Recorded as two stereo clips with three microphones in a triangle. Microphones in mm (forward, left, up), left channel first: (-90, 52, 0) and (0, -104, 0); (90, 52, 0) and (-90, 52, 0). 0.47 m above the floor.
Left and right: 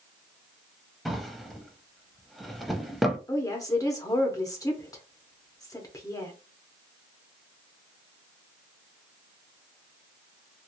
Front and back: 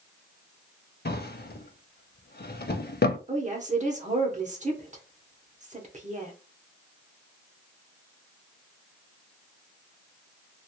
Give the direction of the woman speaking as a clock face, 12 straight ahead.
6 o'clock.